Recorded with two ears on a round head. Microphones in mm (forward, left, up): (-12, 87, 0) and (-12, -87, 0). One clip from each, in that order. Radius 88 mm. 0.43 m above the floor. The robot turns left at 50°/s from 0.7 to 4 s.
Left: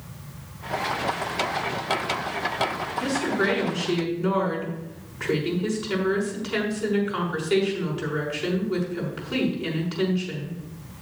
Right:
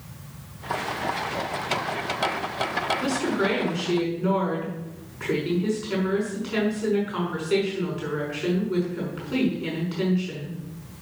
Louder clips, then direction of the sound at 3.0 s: Even; 150° right.